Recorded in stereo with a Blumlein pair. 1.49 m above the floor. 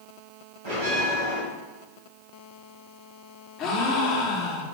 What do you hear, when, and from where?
0.7 s a bell: 55° right, 1.9 m
3.6 s a gasp: 35° left, 0.7 m